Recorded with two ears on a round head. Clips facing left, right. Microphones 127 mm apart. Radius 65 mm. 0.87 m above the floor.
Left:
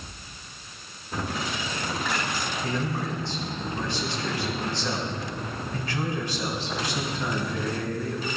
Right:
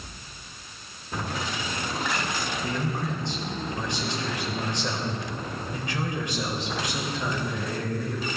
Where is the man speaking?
15° right (ahead or behind), 3.5 m.